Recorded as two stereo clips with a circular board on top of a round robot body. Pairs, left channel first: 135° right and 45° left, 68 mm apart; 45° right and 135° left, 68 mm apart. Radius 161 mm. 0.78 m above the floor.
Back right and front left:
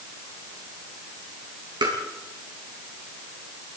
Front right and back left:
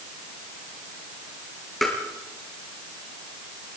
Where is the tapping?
40° left, 4.5 m.